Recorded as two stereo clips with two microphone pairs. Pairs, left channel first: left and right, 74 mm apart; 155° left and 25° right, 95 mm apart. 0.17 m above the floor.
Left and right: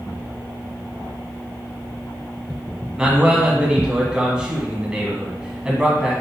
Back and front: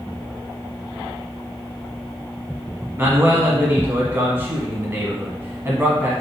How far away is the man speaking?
About 1.1 m.